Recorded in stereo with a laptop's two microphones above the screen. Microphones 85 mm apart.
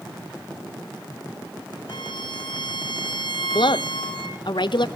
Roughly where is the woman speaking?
Left.